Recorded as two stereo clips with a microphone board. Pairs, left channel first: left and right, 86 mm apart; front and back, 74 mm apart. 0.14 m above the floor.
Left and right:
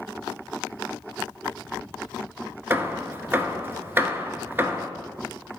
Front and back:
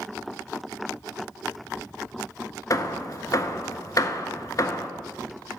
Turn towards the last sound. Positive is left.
turn(degrees=-30)